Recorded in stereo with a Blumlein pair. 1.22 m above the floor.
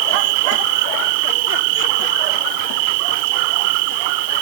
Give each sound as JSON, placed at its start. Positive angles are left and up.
{"t": 0.0, "sound": "an insect", "azimuth_deg": -45}